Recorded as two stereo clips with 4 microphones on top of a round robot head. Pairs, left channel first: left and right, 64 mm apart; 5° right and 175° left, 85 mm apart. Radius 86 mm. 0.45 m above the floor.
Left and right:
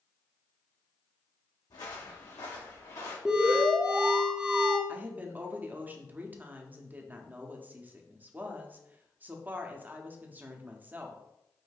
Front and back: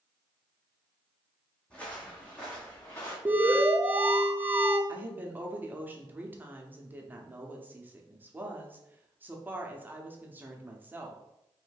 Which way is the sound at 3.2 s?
145° right.